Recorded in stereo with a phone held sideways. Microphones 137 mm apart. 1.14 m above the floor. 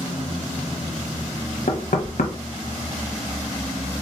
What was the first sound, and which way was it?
Knocking, 70° left (ahead or behind).